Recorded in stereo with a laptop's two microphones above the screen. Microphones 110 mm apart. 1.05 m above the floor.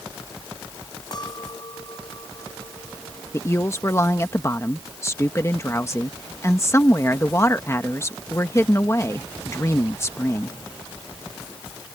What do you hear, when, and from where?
1.1 s a clink: 40° left (ahead or behind)
3.3 s a woman speaking: 25° left (ahead or behind)